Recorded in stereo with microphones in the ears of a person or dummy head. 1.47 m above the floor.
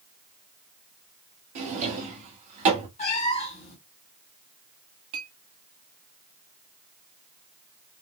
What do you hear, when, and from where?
1.6 s a drawer: 40° right (ahead or behind), 1.1 m
3.0 s a cat meowing: 40° left (ahead or behind), 2.5 m
5.1 s a clink: 30° right (ahead or behind), 1.1 m